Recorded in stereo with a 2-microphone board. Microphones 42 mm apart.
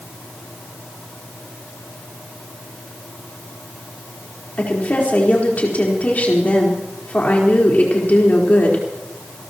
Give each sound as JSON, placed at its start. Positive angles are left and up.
{"t": 4.6, "sound": "a woman speaking", "side_deg": 40, "distance_m": 4.5}